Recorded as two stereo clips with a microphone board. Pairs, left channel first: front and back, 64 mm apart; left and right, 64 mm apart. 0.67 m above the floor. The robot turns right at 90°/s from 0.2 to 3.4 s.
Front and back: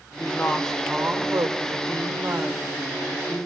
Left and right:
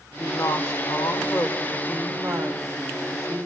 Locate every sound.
0.2 s a woman speaking: 40° left, 3 m; by 3.5 s 35° right, 3 m